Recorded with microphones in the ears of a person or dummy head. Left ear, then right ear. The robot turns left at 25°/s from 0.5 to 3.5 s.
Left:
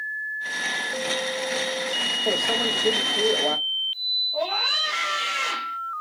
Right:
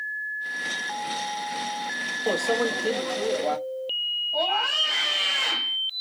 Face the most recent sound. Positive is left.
turn(degrees=-15)  # may be behind; listen again after turning